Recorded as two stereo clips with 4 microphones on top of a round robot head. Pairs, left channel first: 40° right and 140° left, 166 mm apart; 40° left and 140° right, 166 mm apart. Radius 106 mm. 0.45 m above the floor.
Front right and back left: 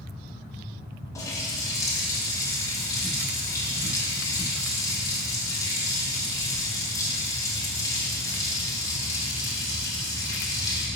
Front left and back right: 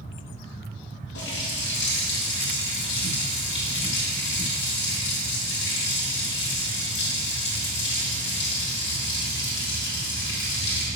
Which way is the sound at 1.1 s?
30° left.